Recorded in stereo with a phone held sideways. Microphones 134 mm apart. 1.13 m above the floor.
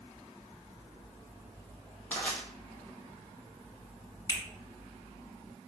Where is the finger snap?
30° left (ahead or behind), 1.5 m.